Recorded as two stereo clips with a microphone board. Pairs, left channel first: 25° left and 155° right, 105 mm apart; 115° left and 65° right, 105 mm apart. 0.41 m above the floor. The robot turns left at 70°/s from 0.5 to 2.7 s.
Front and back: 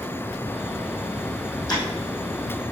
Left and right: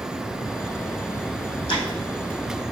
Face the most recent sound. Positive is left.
turn(degrees=5)